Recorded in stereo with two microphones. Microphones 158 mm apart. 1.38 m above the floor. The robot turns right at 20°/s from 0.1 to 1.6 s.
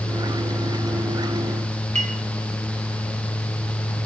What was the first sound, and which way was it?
A clink, 50° right (ahead or behind).